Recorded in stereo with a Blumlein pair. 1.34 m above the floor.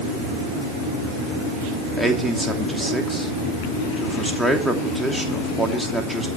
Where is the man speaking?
Straight ahead, 3 m.